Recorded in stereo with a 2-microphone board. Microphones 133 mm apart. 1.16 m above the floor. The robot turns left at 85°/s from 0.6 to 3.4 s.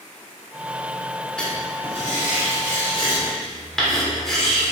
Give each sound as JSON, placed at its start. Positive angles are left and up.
{"t": 1.4, "sound": "writing", "azimuth_deg": 175, "distance_m": 3.0}